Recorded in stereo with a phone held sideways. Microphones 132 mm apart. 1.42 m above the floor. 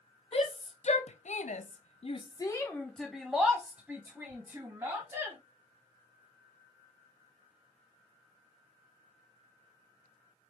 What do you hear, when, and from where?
0.3 s a shout: 50° left (ahead or behind), 1.2 m; by 5.4 s 20° right (ahead or behind), 2 m